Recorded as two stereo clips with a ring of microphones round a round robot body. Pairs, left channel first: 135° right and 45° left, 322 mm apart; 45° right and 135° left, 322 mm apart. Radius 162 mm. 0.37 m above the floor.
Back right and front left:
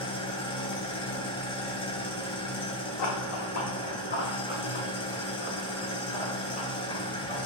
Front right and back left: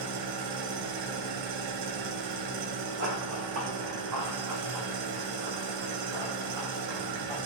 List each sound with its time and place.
0.0 s an engine running: 150° left, 0.8 m
3.0 s running footsteps: 165° right, 1.4 m; by 7.4 s 155° left, 5 m